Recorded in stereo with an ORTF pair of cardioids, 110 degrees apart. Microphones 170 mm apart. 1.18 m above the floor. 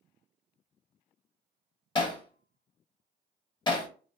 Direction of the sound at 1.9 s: 25° left.